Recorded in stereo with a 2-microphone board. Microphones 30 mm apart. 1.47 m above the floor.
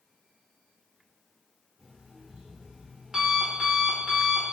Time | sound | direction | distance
1.8 | an alarm clock | 25° right (ahead or behind) | 1.1 m